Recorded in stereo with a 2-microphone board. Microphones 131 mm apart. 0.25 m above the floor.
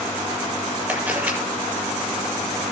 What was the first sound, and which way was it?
A camera shutter, 10° right (ahead or behind).